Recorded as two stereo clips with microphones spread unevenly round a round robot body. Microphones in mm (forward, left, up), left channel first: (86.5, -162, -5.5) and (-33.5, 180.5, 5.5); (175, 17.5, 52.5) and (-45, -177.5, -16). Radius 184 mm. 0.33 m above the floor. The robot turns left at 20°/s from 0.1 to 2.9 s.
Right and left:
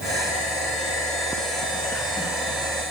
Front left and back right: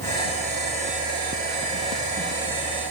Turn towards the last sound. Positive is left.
No sound to turn to.